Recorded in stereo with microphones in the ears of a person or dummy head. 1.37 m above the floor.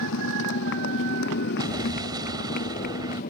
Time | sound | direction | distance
0.0 | a motorcycle | 70° left (ahead or behind) | ?
1.6 | an explosion | 20° right (ahead or behind) | ?